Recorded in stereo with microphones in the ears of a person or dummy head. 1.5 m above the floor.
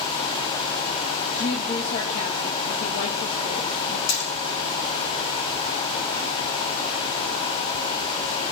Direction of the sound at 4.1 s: 70° left (ahead or behind).